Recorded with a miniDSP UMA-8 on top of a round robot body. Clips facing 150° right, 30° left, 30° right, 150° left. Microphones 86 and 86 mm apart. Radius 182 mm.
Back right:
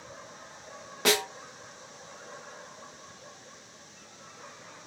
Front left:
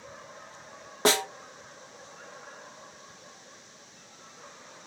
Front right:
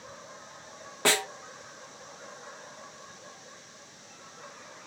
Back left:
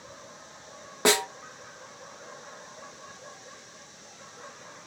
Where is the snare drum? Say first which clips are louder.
Front left 2 dB, back left 3 dB; 80° left, 0.9 m.